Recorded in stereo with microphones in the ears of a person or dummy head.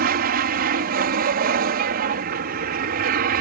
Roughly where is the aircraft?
Right.